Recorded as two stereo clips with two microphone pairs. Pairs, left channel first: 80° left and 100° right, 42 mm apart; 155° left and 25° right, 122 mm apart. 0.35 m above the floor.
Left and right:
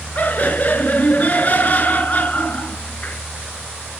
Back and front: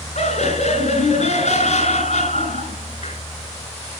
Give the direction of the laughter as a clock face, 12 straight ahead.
8 o'clock.